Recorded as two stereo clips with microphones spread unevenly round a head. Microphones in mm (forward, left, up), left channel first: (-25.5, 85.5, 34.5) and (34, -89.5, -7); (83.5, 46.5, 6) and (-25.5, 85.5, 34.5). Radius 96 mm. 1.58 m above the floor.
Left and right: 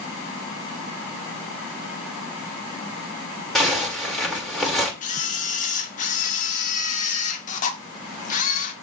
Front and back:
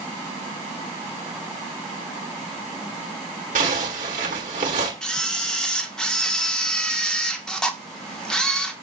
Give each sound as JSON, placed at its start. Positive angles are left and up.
{"t": 3.5, "sound": "a zipper", "azimuth_deg": -165, "distance_m": 3.5}
{"t": 5.0, "sound": "a camera shutter", "azimuth_deg": 70, "distance_m": 2.0}